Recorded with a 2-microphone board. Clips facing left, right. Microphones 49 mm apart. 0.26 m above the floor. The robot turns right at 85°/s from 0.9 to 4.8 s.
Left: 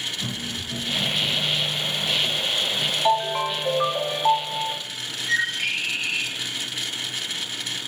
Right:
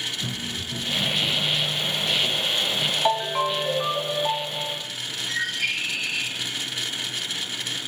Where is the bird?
35° left (ahead or behind), 3.5 m.